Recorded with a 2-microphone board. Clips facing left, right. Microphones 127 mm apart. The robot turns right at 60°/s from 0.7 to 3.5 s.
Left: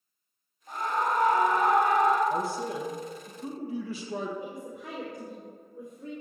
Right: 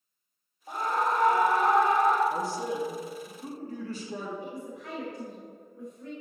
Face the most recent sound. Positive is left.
turn(degrees=20)  # may be behind; listen again after turning